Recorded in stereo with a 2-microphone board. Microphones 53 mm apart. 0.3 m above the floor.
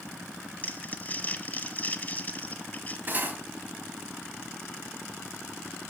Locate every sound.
0.6 s crumpling: 30° left (ahead or behind), 0.8 m
3.1 s cutlery clinking: 40° right (ahead or behind), 1.1 m